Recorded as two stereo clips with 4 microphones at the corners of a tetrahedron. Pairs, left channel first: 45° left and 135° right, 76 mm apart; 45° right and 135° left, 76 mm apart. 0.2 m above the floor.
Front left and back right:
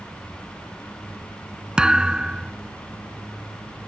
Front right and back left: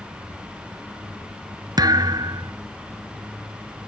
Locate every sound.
1.8 s a thud: 150° left